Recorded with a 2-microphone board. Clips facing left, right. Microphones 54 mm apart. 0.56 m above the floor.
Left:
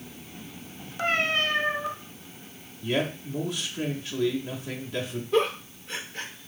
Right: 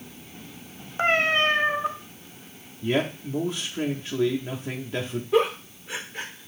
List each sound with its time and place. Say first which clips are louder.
1.0 s a cat meowing: right 4 dB; 30° right (ahead or behind), 0.6 m
2.8 s a man speaking: right 2 dB; 30° right (ahead or behind), 0.8 m
5.3 s a giggle: right 2 dB; 10° right (ahead or behind), 1.0 m